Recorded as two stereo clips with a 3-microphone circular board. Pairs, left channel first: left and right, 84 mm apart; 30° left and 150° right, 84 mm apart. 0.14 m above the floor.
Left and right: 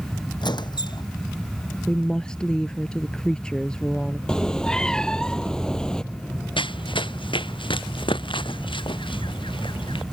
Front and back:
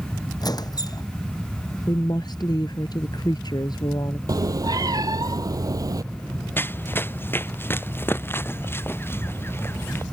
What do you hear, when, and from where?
0.4 s a squeak: 65° left
1.9 s a woman speaking: 10° left
4.3 s a cat meowing: 170° left
6.6 s running footsteps: 95° left